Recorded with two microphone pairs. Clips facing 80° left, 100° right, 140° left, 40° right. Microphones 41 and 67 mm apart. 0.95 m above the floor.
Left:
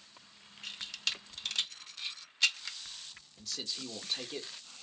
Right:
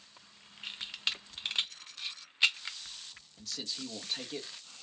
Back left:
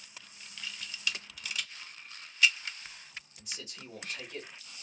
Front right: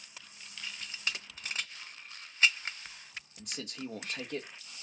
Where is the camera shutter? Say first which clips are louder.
Right 1 dB, back left 1 dB; 55° right, 0.7 m.